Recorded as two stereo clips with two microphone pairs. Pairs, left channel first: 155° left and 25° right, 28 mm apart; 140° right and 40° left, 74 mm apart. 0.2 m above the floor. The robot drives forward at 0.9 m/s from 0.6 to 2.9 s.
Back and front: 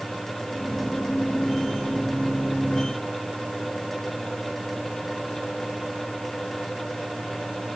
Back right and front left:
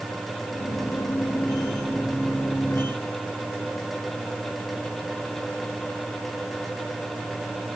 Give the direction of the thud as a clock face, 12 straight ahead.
I don't hear a thud.